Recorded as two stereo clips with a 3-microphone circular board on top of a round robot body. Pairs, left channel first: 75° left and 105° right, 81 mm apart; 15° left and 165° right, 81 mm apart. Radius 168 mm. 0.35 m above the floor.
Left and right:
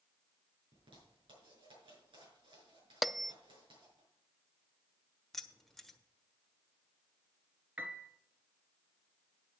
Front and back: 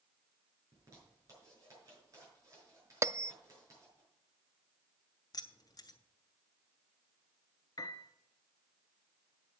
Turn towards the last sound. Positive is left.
turn(degrees=-35)